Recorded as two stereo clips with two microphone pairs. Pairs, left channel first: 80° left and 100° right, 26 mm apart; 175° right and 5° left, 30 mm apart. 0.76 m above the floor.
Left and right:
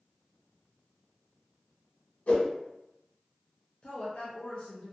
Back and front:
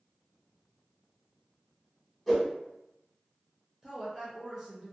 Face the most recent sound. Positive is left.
turn(degrees=80)